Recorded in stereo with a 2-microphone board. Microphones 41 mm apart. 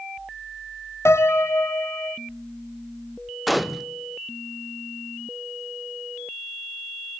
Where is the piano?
70° left (ahead or behind), 0.6 m.